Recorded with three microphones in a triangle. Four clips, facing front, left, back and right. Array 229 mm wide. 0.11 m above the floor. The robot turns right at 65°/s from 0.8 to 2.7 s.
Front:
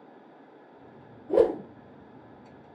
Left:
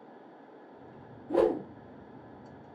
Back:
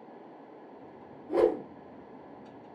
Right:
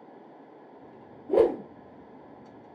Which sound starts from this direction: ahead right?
A whoosh, at 1.3 s.